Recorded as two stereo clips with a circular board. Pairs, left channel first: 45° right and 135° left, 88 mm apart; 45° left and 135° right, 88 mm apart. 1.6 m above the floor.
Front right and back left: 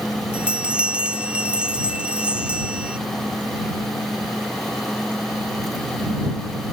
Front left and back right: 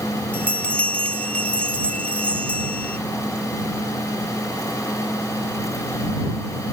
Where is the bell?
85° left.